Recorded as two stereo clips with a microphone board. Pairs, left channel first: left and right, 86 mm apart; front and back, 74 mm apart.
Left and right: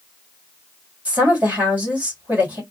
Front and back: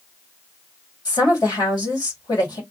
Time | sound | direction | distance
1.1 | a woman speaking | 20° right | 2 m